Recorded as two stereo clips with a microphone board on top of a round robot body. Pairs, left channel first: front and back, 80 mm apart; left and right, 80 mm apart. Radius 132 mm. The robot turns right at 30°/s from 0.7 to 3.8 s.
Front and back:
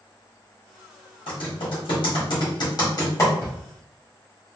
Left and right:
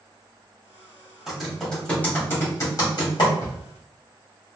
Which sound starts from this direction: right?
A drawer, at 3.4 s.